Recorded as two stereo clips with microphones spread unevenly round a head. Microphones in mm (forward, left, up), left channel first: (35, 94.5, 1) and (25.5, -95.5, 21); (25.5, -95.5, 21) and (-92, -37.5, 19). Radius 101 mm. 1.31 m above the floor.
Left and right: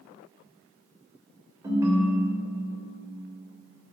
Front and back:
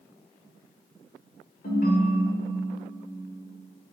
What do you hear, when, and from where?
1.6 s a ringtone: 20° right, 2 m